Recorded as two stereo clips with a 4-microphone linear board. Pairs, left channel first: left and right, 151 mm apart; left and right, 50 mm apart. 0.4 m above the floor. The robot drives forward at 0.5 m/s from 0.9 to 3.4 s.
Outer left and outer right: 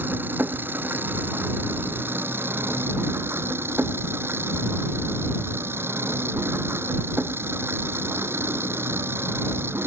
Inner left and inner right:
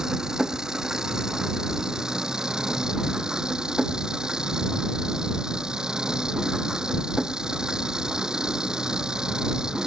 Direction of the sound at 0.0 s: 15° right (ahead or behind).